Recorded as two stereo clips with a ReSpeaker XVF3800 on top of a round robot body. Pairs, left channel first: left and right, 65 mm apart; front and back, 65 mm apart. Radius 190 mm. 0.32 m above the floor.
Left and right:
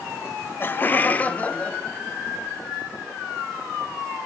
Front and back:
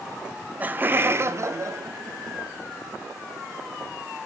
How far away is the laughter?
About 1.0 m.